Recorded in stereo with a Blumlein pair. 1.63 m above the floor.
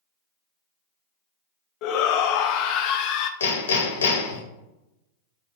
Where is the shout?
40° left, 0.5 m.